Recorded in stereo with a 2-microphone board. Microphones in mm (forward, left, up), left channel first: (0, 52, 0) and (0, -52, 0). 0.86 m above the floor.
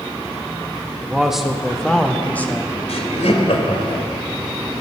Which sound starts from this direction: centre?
A man speaking, at 1.0 s.